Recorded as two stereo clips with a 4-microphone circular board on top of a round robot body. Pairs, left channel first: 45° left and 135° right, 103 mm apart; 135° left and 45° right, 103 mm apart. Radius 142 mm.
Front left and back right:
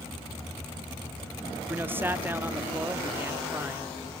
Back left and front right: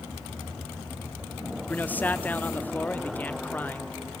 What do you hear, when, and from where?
1.7 s a man speaking: 175° right, 0.9 m